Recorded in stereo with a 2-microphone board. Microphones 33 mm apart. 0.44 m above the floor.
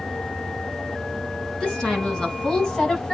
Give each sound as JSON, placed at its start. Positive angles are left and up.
{"t": 1.6, "sound": "a woman speaking", "side_deg": 30, "distance_m": 4.5}